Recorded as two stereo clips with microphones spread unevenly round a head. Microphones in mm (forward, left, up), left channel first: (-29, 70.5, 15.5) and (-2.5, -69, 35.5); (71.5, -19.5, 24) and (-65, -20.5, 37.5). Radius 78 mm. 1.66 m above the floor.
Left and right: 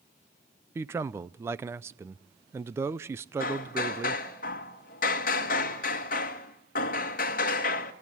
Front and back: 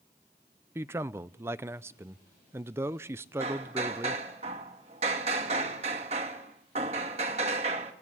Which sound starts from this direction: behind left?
Hammering, at 3.4 s.